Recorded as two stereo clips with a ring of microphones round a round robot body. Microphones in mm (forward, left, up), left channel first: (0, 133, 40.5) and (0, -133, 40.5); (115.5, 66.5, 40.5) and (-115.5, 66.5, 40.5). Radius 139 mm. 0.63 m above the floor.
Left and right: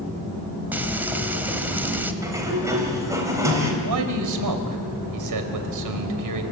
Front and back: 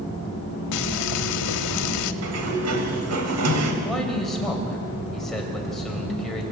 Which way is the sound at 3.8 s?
90° right.